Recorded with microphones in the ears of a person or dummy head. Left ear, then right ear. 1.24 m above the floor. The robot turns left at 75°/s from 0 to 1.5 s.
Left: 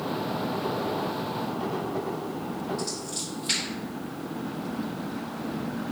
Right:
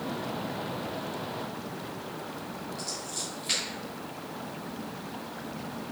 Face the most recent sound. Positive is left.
turn(degrees=5)  # may be behind; listen again after turning